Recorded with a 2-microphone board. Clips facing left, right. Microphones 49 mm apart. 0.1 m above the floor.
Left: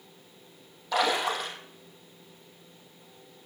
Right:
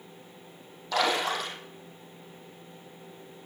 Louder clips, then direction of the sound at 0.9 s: Even; 10° left (ahead or behind).